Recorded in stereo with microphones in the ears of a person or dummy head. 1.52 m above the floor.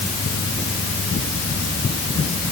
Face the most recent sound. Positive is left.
No sound to turn to.